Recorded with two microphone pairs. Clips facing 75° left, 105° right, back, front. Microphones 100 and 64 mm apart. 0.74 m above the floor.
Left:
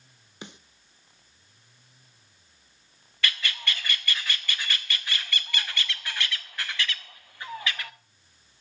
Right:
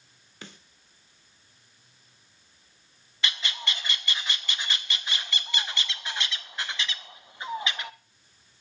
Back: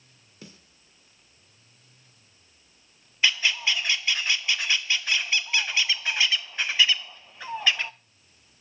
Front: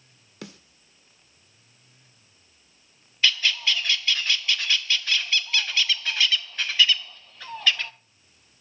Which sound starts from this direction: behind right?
A bird, at 3.2 s.